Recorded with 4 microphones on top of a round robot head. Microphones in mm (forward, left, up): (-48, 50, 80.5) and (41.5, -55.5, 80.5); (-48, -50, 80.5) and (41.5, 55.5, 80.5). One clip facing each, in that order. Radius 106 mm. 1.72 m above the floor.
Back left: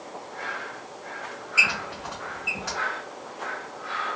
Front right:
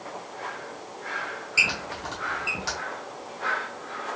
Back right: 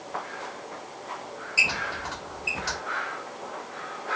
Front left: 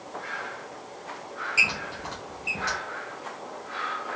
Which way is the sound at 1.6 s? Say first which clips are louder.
Back left 2 dB, back right 1 dB; 10° right.